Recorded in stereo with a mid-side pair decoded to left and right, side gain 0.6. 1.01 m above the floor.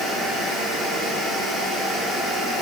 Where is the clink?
No clink in this recording.